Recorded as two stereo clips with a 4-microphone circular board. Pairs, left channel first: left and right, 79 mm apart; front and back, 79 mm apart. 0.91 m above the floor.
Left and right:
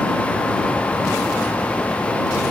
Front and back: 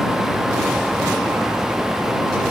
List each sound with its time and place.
Only background noise.